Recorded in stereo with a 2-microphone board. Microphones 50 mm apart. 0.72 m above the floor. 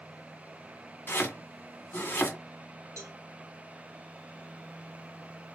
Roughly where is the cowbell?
Right.